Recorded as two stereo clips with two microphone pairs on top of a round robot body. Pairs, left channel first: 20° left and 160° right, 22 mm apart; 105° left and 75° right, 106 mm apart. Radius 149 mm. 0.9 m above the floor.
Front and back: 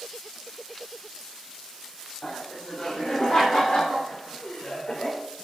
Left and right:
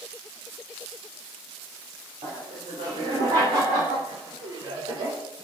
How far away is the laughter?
About 4 m.